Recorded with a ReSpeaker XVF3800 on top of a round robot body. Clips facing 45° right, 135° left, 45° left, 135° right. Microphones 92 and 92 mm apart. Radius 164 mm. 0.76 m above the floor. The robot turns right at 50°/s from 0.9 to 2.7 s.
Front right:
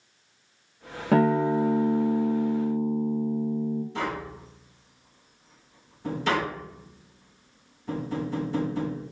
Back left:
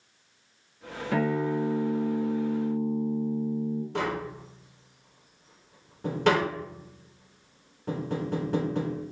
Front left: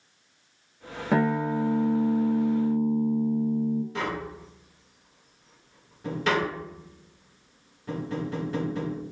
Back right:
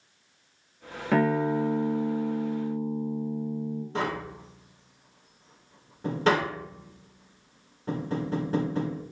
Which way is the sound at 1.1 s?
30° right.